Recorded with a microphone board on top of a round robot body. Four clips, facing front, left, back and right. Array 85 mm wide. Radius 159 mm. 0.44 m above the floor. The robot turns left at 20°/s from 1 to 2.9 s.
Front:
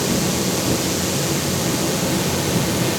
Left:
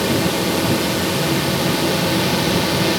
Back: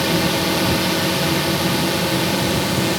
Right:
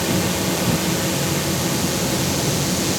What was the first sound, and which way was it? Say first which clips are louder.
A drone: left 3 dB, back 2 dB; 155° left.